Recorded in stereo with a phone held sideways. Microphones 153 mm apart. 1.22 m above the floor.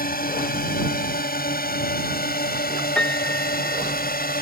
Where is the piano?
10° left (ahead or behind).